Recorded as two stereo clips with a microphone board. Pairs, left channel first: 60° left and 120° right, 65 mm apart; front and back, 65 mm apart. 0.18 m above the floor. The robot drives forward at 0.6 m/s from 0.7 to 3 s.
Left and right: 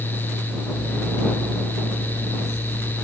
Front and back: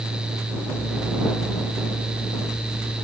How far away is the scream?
I don't hear a scream.